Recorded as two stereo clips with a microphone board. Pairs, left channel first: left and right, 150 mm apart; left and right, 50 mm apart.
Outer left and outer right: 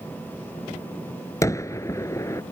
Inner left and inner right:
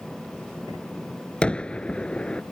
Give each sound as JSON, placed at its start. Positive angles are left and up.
{"t": 1.4, "sound": "a gunshot", "side_deg": 20}